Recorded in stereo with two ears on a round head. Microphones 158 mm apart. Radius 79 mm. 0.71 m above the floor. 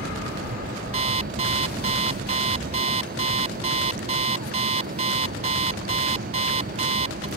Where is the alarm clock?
40° right (ahead or behind).